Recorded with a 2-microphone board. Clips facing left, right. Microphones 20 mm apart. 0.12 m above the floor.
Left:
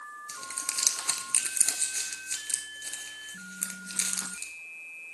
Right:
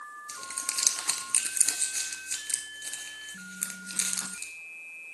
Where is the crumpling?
5° right (ahead or behind), 1.2 m.